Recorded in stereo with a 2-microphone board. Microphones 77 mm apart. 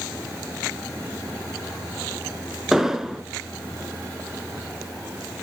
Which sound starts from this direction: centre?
An explosion, at 2.7 s.